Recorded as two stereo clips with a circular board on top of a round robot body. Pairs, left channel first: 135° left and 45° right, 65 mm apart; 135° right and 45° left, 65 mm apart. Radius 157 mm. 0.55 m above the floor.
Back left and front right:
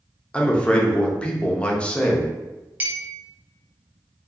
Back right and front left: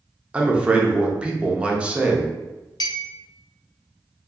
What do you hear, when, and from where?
0.3 s a man speaking: 90° left, 0.7 m
2.8 s a clink: 110° right, 0.5 m